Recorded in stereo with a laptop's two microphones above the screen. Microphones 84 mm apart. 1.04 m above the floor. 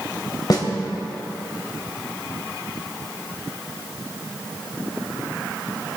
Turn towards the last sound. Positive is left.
turn(degrees=50)  # may be behind; listen again after turning